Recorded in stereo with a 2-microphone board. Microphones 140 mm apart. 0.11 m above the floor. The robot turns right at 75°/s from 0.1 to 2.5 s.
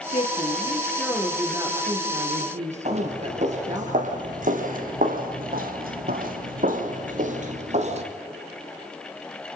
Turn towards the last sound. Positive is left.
turn(degrees=-50)  # may be behind; listen again after turning